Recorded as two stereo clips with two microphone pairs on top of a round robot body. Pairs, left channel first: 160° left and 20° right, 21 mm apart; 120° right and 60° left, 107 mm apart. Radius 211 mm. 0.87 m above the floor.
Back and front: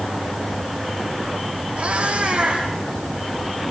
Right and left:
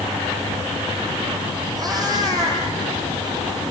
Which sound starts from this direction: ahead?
A cat meowing, at 1.8 s.